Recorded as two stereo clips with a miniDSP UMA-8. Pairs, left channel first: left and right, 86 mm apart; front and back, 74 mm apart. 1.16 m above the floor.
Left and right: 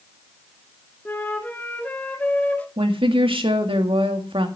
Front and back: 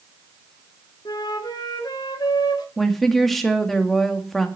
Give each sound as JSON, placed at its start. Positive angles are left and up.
{"t": 1.1, "sound": "a flute", "azimuth_deg": 20, "distance_m": 1.7}
{"t": 2.8, "sound": "a woman speaking", "azimuth_deg": -85, "distance_m": 2.0}